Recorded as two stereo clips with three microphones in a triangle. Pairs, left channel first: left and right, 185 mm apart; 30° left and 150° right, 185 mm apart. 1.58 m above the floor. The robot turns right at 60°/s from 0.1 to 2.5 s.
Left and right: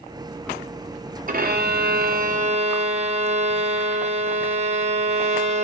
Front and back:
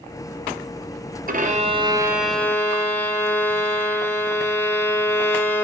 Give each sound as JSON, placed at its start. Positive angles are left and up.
{"t": 1.3, "sound": "a violin", "azimuth_deg": -120, "distance_m": 0.8}